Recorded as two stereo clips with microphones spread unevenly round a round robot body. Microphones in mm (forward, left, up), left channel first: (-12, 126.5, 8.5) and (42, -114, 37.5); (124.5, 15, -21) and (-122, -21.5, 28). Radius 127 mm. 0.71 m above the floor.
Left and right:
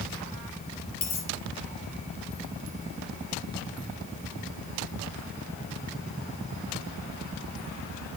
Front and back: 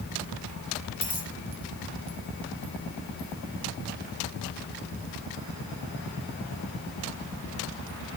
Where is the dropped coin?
60° left, 5.5 m.